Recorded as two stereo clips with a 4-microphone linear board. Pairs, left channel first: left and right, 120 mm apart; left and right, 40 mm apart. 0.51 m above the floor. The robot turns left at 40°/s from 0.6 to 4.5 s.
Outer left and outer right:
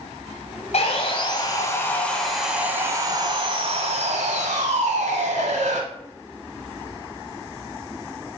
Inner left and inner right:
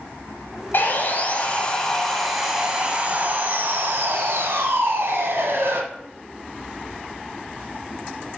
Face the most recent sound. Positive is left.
turn(degrees=-85)